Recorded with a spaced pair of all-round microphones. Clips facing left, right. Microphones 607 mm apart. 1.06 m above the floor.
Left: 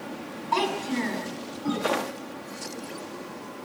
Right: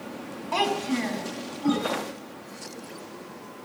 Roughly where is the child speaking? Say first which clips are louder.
Right 1 dB; centre.